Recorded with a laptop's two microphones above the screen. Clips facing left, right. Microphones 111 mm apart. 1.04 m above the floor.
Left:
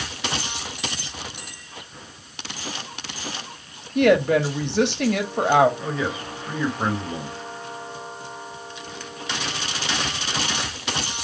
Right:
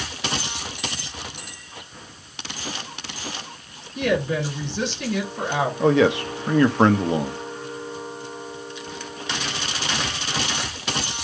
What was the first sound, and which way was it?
A woman speaking, 65° left (ahead or behind).